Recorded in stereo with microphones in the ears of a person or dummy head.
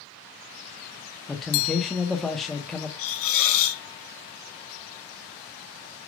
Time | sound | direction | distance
1.3 | a man speaking | 5° left (ahead or behind) | 0.9 m
3.0 | a hiss | 70° left (ahead or behind) | 1.3 m